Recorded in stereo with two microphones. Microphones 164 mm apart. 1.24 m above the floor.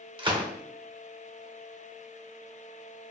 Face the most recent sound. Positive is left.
turn(degrees=-30)  # may be behind; listen again after turning